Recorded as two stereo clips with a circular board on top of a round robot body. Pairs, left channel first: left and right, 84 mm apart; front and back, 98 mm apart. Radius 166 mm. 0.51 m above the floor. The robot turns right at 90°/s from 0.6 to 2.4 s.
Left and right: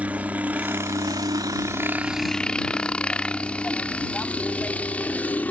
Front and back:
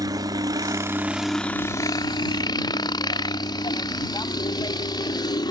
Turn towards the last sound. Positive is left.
turn(degrees=25)